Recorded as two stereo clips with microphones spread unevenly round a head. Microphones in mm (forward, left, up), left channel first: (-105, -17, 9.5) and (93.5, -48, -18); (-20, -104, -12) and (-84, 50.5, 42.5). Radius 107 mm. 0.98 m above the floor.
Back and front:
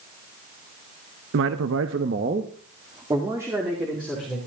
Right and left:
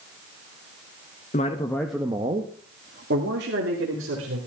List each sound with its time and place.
1.3 s a man speaking: 25° right, 0.9 m; by 4.4 s 75° left, 3 m